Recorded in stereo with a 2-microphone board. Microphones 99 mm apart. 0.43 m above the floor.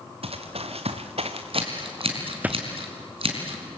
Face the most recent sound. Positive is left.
turn(degrees=-65)  # may be behind; listen again after turning